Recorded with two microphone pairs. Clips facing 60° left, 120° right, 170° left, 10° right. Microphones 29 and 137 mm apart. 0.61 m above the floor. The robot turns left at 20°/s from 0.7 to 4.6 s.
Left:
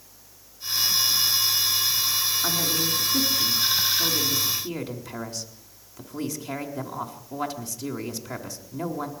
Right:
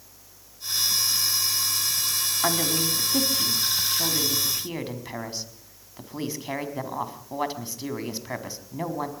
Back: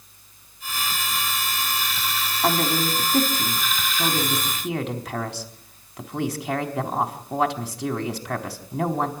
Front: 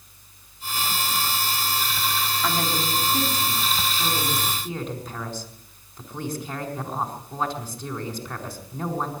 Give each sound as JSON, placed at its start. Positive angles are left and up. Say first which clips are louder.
{"t": 2.4, "sound": "a woman speaking", "louder": "right 1 dB, back 6 dB", "azimuth_deg": -140, "distance_m": 4.0}